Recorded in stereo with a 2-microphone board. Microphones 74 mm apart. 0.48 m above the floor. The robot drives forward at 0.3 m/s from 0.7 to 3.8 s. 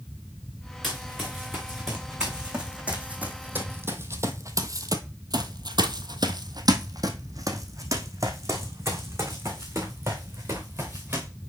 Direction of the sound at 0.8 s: Centre (ahead or behind).